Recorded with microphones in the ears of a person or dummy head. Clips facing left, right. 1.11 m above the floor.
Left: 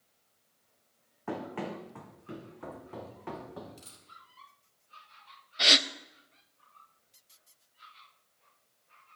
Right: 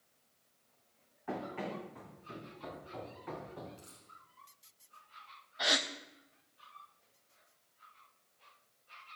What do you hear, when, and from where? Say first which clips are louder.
1.3 s running footsteps: left 3 dB; 65° left (ahead or behind), 3.5 m; by 3.7 s 75° left (ahead or behind), 4 m
3.8 s a dropped coin: left 1 dB; 60° left (ahead or behind), 3.5 m
5.6 s a gasp: left 4 dB; 40° left (ahead or behind), 0.5 m